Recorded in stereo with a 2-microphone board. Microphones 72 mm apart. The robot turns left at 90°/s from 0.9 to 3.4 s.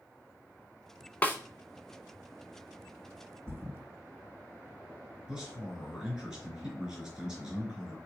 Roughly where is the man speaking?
Centre.